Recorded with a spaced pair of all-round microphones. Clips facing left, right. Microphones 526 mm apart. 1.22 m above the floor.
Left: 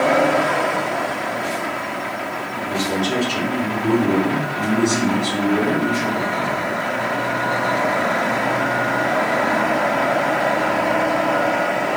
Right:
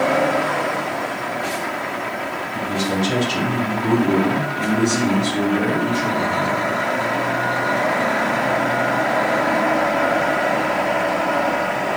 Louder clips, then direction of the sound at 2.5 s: Right 1 dB; 60° right (ahead or behind).